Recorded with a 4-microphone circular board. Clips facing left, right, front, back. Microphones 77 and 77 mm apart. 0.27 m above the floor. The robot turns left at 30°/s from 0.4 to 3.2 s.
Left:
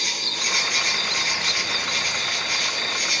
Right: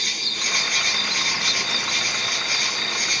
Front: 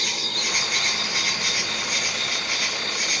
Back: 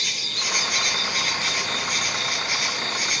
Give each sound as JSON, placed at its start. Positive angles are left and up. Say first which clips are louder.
{"t": 0.0, "sound": "an insect", "louder": "left 1 dB, front 2 dB", "azimuth_deg": -45, "distance_m": 1.9}